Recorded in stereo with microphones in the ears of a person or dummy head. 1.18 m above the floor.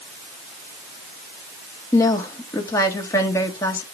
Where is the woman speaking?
5° left (ahead or behind), 1.7 m.